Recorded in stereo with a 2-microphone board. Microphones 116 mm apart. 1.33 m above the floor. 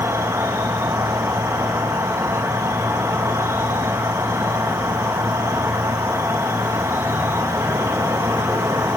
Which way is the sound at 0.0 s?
25° right (ahead or behind).